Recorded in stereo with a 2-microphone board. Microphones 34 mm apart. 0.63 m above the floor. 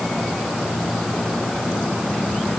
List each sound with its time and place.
Only background noise.